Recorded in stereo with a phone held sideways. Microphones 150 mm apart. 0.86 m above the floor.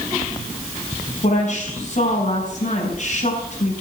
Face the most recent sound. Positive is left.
turn(degrees=55)  # may be behind; listen again after turning